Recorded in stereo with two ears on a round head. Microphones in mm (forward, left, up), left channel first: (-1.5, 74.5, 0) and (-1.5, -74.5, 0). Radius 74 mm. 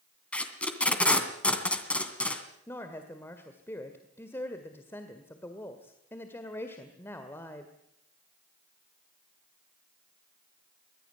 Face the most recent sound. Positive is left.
turn(degrees=15)  # may be behind; listen again after turning